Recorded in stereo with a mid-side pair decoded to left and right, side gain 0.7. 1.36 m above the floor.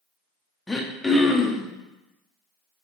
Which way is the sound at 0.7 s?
10° left.